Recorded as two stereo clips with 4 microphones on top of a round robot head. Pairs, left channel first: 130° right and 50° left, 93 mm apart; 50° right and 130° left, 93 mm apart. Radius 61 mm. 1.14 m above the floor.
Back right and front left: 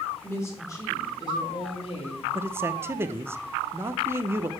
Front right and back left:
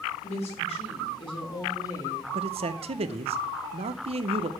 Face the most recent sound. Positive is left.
turn(degrees=115)